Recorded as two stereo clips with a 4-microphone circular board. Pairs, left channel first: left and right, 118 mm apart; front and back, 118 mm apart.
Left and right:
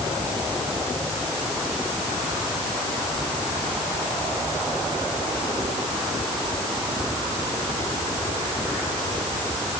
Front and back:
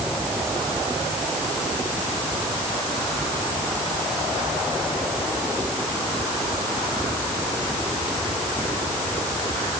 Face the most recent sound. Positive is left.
No sound to turn to.